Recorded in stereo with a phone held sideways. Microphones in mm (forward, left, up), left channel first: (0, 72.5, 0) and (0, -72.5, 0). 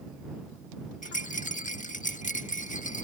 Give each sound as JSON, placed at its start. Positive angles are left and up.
{"t": 1.0, "sound": "a rattle", "side_deg": 55}